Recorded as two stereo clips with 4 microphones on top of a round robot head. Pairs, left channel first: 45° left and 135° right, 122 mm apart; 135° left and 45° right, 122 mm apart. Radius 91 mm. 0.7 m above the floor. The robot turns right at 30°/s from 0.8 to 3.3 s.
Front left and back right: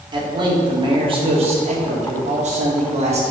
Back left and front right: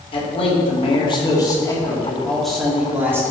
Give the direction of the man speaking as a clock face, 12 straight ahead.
6 o'clock.